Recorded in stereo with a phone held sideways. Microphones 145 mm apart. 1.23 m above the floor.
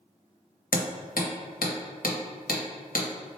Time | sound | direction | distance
0.7 | hammering | 85° left | 1.0 m